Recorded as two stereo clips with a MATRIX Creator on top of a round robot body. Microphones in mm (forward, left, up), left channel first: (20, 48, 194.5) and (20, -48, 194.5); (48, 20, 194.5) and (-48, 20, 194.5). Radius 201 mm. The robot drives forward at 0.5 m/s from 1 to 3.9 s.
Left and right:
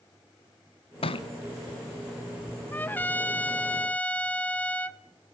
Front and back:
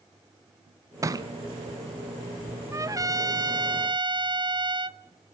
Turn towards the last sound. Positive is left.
turn(degrees=165)